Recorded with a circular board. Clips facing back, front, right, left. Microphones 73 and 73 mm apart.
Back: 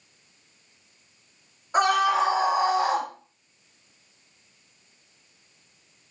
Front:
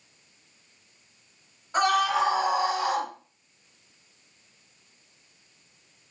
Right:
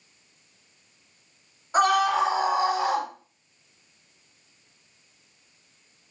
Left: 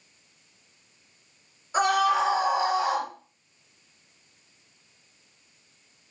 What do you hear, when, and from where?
1.7 s a scream: 115° right, 2.5 m; by 3.1 s 140° right, 2 m